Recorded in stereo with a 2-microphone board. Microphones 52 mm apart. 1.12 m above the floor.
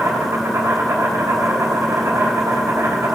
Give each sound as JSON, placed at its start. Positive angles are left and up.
{"t": 0.0, "sound": "an insect", "side_deg": -70, "distance_m": 3.5}